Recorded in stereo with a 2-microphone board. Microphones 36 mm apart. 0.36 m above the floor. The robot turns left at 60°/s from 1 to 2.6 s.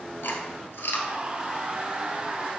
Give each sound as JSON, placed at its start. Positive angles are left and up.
{"t": 0.2, "sound": "chewing", "side_deg": 80, "distance_m": 1.4}